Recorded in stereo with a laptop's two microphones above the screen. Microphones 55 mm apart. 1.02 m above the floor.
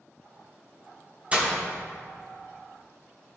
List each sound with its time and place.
1.3 s breaking glass: 25° right (ahead or behind), 0.9 m